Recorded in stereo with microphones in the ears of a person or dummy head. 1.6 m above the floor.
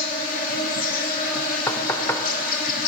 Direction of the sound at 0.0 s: 50° left (ahead or behind).